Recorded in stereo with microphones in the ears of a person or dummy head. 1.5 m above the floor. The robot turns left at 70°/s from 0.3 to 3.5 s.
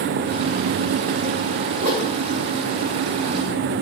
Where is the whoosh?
40° right (ahead or behind), 2 m; by 2.1 s 20° right (ahead or behind), 2 m.